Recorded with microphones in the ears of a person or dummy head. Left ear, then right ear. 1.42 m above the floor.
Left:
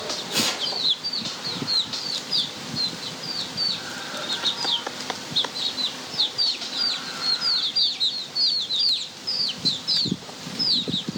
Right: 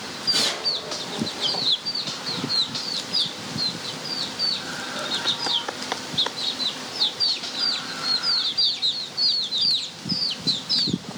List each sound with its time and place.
0.3 s tearing paper: 35° right (ahead or behind), 2.0 m